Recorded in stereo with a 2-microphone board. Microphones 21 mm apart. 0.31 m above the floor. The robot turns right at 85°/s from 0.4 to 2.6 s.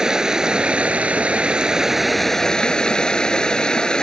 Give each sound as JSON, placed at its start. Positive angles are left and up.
{"t": 0.0, "sound": "running water", "azimuth_deg": -145}